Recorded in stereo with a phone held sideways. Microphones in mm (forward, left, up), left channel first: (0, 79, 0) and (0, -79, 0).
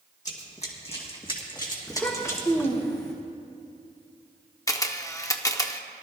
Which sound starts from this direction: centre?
A child speaking, at 1.9 s.